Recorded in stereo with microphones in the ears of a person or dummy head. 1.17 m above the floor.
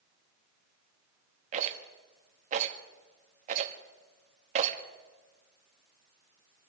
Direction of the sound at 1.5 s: 45° right (ahead or behind).